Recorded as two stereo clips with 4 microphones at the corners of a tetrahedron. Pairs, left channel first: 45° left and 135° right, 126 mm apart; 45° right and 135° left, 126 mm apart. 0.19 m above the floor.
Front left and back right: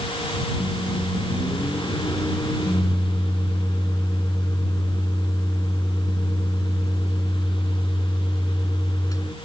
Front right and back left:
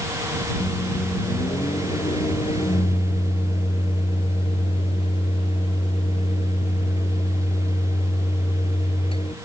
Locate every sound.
0.6 s a microwave: 15° right